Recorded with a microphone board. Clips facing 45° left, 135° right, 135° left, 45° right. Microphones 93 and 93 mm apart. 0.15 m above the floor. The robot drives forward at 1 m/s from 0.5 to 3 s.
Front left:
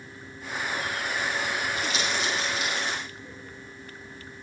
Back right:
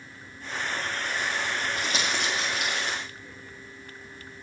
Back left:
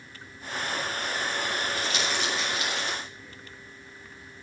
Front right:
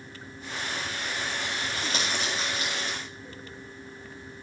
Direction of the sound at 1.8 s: 90° right.